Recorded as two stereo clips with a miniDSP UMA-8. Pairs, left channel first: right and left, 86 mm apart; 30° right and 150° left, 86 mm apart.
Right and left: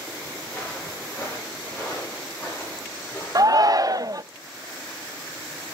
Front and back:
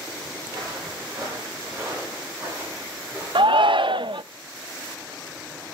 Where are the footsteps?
160° right, 6.5 m; by 3.7 s 150° right, 9 m.